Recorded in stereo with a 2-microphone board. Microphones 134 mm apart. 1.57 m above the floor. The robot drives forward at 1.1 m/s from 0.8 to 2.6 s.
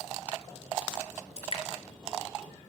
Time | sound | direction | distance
1.4 | dripping | 50° left (ahead or behind) | 3.5 m